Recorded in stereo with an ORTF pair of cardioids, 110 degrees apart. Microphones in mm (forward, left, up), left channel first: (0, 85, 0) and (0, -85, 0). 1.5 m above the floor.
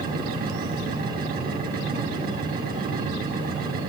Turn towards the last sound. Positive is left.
turn(degrees=-70)